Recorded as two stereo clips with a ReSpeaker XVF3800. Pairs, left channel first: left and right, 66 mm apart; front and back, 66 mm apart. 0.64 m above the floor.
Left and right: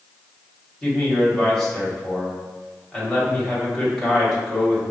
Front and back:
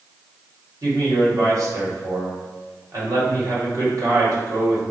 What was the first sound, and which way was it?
A man speaking, 170° left.